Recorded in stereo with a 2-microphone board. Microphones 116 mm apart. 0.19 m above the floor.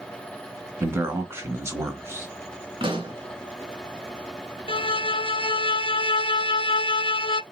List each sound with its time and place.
0.8 s a man speaking: 20° right (ahead or behind), 1.5 m
2.8 s a pop: 45° right (ahead or behind), 2.5 m
4.7 s a violin: 45° left (ahead or behind), 0.5 m